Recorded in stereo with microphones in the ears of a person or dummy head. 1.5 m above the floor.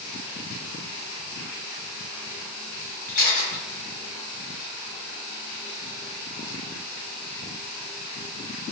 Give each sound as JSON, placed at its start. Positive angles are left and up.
{"t": 3.1, "sound": "a camera shutter", "side_deg": 45, "distance_m": 1.0}